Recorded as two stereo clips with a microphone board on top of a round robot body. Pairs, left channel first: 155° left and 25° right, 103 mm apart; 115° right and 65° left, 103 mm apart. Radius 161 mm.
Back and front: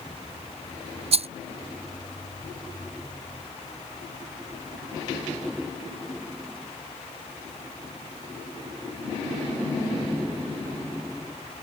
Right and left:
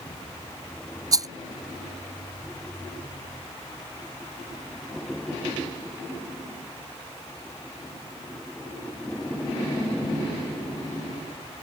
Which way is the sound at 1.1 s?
5° left.